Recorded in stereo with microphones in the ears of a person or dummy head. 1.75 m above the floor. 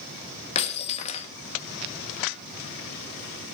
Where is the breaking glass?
30° left (ahead or behind), 1.5 m.